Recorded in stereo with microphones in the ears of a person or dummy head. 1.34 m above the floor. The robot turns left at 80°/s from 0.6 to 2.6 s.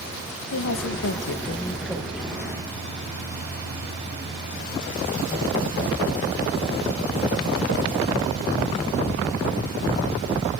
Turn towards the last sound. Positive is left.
turn(degrees=-40)